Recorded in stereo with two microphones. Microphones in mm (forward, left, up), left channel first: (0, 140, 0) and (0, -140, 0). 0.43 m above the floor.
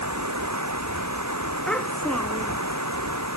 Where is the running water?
80° right.